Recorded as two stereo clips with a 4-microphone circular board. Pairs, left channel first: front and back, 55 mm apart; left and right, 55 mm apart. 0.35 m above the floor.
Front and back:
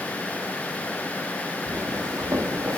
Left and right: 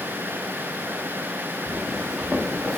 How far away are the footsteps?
About 3 m.